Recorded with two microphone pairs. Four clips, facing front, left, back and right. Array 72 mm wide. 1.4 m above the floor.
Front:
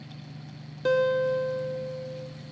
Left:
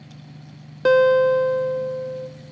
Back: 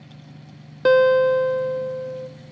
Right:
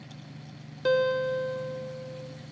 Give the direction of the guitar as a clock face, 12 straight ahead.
7 o'clock.